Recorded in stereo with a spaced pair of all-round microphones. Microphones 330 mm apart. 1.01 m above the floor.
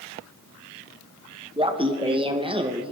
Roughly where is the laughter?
Centre.